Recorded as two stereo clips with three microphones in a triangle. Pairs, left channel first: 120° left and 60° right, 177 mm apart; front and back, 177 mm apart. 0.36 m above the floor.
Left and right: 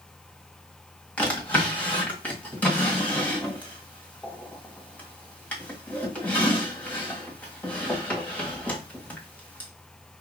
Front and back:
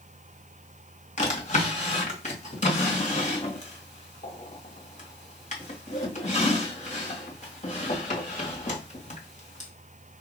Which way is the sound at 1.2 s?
40° left.